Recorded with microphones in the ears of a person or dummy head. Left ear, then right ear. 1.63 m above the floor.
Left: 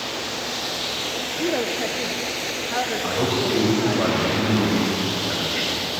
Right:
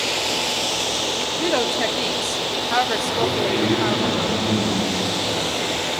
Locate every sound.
1.4 s a woman speaking: 35° right (ahead or behind), 1.3 m
3.0 s a man speaking: 75° left (ahead or behind), 7 m